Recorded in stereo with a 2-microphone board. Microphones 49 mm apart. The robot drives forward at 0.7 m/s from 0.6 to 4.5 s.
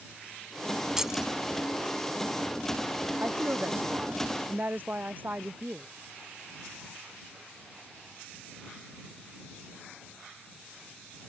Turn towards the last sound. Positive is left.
turn(degrees=-40)  # may be behind; listen again after turning